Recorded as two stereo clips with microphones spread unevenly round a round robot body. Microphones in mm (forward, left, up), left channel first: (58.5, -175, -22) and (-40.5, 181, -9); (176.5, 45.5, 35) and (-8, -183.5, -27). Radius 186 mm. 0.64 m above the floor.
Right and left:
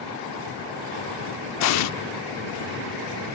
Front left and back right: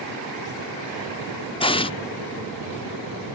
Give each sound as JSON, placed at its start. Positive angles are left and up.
{"t": 1.6, "sound": "an explosion", "azimuth_deg": -25}